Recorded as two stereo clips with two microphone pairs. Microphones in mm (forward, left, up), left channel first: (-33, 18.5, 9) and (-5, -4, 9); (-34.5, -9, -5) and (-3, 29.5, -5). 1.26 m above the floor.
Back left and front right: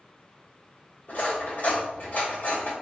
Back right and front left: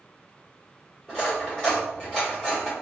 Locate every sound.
1.1 s cutlery clinking: 155° left, 1.9 m